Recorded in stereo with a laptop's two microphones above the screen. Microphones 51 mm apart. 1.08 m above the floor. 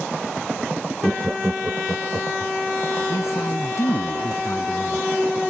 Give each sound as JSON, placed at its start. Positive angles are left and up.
{"t": 1.0, "sound": "laughter", "side_deg": -5}
{"t": 3.1, "sound": "a man speaking", "side_deg": 70}